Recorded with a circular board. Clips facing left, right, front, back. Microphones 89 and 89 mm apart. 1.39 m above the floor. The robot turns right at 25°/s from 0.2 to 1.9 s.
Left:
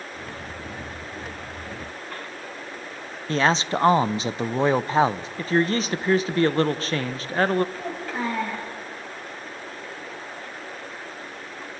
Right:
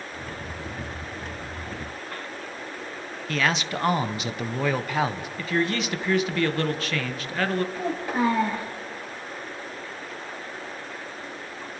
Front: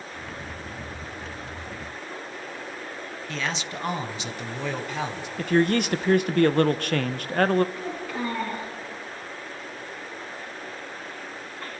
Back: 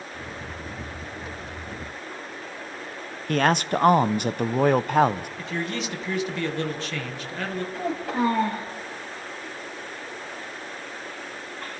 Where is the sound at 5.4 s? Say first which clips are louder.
Left 4 dB, front 13 dB; 35° left, 1.1 m.